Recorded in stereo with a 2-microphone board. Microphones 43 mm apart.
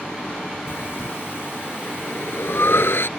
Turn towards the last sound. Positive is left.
turn(degrees=70)  # may be behind; listen again after turning